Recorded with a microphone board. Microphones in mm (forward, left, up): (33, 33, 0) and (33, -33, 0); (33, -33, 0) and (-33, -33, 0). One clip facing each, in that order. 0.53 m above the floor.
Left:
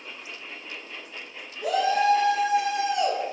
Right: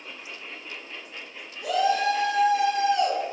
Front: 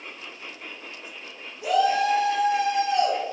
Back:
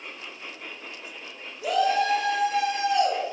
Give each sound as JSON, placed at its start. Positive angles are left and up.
{"t": 1.6, "sound": "a shout", "azimuth_deg": 75, "distance_m": 1.3}